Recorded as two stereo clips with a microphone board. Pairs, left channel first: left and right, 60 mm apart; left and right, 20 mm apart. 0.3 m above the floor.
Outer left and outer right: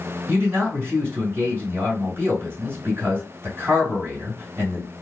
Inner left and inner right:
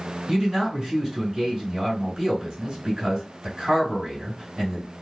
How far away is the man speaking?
About 1.9 m.